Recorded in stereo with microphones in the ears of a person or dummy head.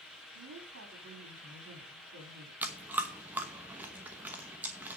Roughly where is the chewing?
Centre.